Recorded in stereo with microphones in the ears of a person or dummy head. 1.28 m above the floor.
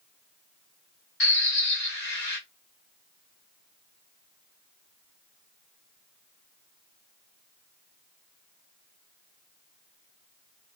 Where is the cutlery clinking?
I don't hear cutlery clinking.